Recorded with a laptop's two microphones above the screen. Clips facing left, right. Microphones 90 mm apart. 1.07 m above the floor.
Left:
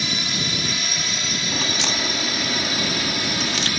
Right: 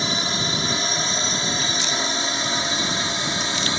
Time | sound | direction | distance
0.0 | a drone | 30° right (ahead or behind) | ?
1.5 | a crack | 80° left | ?